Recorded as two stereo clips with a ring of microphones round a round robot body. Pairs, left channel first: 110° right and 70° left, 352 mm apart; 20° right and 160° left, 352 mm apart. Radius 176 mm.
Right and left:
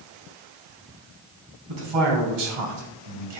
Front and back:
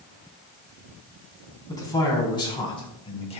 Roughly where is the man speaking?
Ahead left.